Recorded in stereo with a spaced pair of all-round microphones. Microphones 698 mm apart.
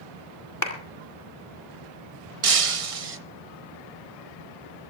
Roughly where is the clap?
Left.